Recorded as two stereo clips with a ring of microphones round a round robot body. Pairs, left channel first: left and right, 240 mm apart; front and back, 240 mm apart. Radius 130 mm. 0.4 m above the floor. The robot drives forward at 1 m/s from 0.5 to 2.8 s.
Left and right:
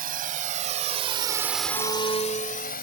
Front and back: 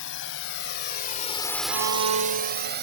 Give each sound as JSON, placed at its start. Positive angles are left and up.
{"t": 0.0, "sound": "a drone", "azimuth_deg": -40}
{"t": 1.7, "sound": "a violin", "azimuth_deg": 160}